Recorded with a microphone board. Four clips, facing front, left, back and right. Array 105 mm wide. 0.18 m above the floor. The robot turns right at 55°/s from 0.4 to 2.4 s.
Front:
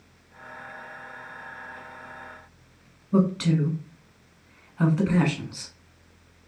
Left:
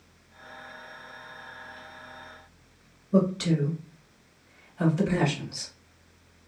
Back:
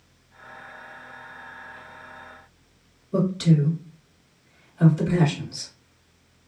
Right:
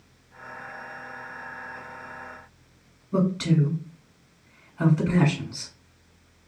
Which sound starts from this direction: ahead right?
A man speaking, at 3.1 s.